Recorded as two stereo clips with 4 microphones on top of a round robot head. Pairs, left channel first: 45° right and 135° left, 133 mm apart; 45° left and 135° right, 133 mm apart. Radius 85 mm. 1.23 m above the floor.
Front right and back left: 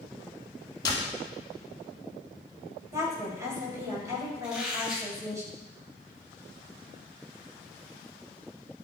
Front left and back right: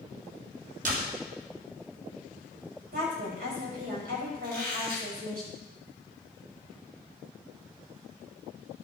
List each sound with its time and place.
0.8 s a door slam: 105° right, 3 m
2.9 s a woman speaking: 155° right, 5.5 m
4.4 s a squeak: 140° right, 5.5 m